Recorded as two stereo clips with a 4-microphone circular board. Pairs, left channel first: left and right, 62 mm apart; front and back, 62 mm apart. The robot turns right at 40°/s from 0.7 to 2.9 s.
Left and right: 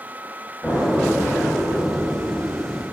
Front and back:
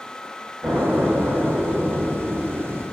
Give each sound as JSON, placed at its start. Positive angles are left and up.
{"t": 0.6, "sound": "an explosion", "azimuth_deg": 155, "distance_m": 0.8}